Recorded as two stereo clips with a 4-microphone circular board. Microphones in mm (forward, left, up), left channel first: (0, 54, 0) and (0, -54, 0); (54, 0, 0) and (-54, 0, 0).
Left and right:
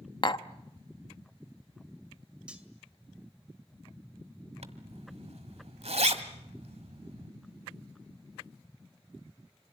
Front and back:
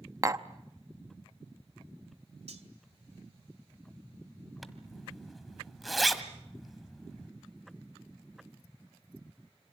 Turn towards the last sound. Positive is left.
turn(degrees=-90)